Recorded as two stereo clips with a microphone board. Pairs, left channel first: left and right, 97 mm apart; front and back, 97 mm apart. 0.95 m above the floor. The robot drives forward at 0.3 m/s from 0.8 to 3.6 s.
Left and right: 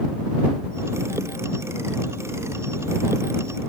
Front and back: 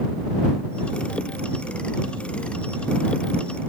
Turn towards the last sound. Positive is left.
No sound to turn to.